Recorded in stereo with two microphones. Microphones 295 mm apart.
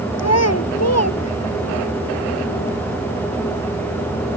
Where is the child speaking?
60° left (ahead or behind).